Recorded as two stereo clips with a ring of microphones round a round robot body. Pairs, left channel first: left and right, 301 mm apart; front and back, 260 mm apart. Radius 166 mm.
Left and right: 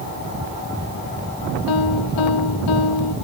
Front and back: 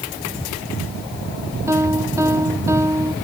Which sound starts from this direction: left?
A piano, at 1.7 s.